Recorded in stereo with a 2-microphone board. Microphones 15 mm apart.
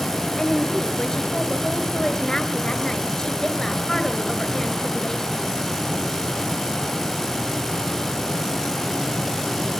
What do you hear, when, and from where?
0.4 s a woman speaking: 35° left (ahead or behind), 2.0 m